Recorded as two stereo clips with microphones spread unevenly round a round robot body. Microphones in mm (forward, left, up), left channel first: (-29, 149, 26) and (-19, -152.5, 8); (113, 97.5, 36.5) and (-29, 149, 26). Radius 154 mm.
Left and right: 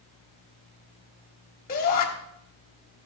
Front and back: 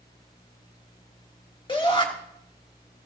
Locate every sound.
1.7 s a shout: 35° left, 1.3 m